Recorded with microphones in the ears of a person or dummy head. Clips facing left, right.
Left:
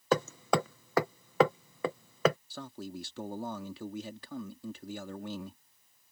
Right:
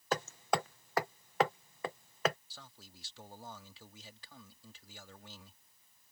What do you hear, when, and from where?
0.1 s hammering: 75° left (ahead or behind)
2.5 s a man speaking: 55° left (ahead or behind)